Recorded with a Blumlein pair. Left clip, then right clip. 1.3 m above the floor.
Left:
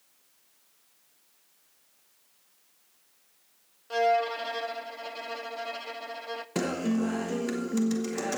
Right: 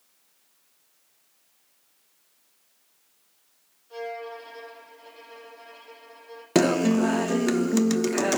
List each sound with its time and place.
3.9 s a violin: 35° left, 0.7 m
6.5 s a guitar: 50° right, 0.8 m